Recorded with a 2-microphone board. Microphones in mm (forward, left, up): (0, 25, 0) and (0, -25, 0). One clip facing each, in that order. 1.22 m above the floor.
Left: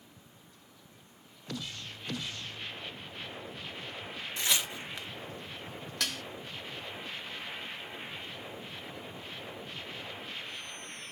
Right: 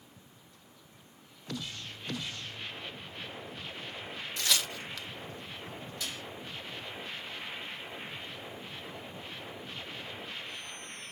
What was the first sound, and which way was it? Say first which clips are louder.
Tearing paper: even; 20° left (ahead or behind).